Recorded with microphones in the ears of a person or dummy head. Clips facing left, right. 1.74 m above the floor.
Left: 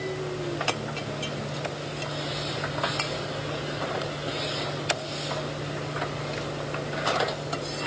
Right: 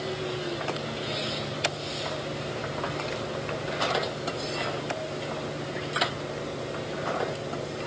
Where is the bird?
No bird in this recording.